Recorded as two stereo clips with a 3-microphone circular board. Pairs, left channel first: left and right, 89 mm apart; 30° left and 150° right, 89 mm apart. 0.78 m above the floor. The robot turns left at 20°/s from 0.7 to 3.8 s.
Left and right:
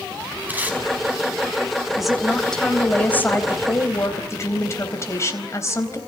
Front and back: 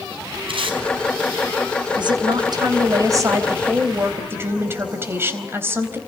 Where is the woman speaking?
175° right, 4 m; by 6.0 s 145° left, 4 m.